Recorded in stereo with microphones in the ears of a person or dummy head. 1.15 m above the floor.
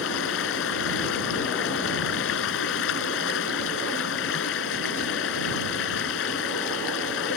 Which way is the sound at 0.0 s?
70° left (ahead or behind).